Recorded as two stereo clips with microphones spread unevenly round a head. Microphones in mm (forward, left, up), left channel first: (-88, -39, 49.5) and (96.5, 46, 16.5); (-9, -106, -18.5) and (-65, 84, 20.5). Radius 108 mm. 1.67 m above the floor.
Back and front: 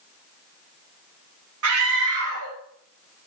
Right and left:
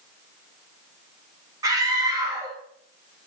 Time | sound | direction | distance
1.6 | a scream | 35° left | 2.5 m